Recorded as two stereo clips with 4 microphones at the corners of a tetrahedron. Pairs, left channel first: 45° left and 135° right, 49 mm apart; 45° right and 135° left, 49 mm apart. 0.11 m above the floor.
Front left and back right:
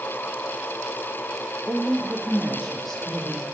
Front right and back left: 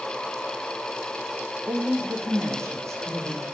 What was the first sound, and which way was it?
A woman speaking, 135° left.